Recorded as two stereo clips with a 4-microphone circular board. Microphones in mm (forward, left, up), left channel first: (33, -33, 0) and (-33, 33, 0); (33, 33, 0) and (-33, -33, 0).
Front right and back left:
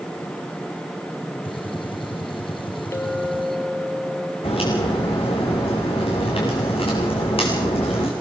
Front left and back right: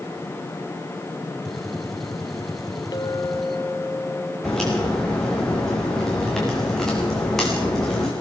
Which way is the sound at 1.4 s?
40° right.